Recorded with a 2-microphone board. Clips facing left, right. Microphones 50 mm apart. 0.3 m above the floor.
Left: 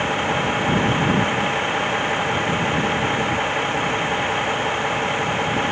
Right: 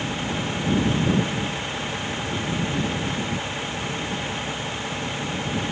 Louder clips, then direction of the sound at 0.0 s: Left 7 dB; 40° left (ahead or behind).